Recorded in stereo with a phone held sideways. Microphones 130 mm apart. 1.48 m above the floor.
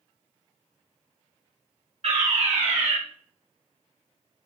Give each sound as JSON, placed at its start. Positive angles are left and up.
{"t": 2.0, "sound": "a fire alarm", "side_deg": -60, "distance_m": 2.5}